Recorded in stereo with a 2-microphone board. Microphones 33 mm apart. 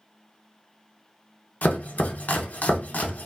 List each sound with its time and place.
1.6 s chopping: 55° left (ahead or behind), 0.6 m